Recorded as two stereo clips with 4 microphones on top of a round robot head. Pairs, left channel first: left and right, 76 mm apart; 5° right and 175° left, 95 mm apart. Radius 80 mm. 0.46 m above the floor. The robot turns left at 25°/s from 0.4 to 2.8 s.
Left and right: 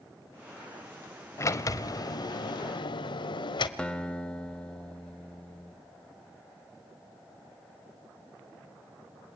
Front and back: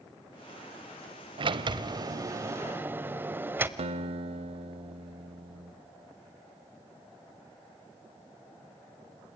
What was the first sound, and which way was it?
A sliding door, 145° left.